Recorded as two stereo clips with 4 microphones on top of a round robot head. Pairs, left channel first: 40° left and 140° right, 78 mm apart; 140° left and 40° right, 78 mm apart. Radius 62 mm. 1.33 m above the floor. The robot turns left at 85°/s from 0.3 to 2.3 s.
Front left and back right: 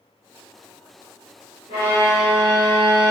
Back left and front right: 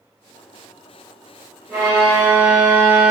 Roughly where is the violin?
Ahead left.